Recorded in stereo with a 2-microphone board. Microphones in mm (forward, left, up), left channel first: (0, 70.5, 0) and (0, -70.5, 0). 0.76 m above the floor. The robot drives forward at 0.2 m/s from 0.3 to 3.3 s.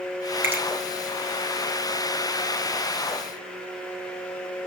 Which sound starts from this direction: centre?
A finger snap, at 0.4 s.